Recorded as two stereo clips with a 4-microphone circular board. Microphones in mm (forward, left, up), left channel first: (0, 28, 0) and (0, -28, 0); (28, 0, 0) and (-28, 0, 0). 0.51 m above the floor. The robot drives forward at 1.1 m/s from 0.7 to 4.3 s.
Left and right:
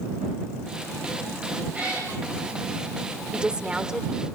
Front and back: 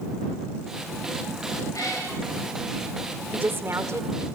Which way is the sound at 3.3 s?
150° right.